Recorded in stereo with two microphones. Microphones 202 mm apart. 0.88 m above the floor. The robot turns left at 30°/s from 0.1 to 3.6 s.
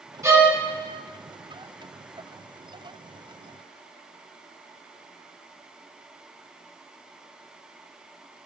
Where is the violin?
15° right (ahead or behind), 1.9 m; by 0.6 s 5° right (ahead or behind), 1.9 m.